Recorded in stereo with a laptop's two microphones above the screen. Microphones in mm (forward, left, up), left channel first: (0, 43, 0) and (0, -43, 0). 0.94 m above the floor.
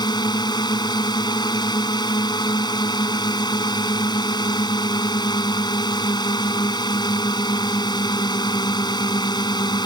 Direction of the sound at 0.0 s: 55° left (ahead or behind).